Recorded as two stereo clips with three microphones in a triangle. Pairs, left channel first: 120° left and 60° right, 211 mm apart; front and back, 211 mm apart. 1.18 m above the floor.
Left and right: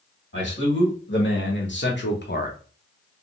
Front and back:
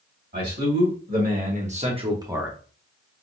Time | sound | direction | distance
0.3 | a man speaking | 145° left | 1.7 m